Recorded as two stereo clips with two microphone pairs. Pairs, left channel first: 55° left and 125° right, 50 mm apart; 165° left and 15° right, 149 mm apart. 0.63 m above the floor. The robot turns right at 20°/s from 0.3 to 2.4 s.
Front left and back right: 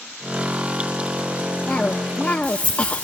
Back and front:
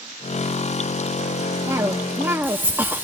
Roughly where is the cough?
Ahead left.